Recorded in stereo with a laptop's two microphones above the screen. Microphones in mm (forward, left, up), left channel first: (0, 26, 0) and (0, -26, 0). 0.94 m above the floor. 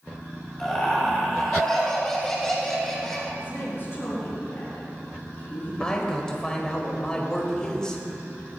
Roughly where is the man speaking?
Centre.